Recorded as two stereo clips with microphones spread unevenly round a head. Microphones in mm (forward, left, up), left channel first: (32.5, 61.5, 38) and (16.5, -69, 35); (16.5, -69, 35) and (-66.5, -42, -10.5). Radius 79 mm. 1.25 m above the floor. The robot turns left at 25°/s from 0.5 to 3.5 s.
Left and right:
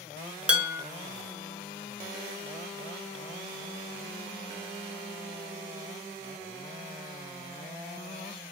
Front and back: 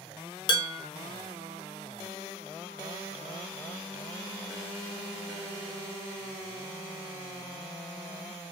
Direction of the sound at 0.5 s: 15° right.